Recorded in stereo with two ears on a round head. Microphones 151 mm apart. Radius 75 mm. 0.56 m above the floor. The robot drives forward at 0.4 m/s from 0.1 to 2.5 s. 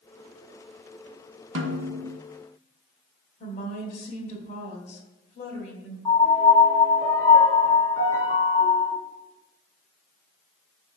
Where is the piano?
20° left (ahead or behind), 1.4 m.